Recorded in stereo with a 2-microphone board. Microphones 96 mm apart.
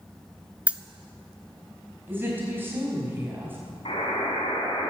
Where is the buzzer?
85° left, 4 m.